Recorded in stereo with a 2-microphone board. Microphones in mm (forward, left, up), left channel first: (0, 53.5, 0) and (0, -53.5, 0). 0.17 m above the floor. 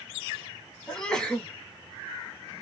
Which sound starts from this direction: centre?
A sneeze, at 0.9 s.